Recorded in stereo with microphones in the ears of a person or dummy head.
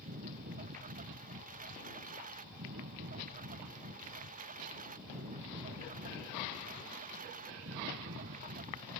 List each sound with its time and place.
0.0 s a lawn mower: 40° right (ahead or behind)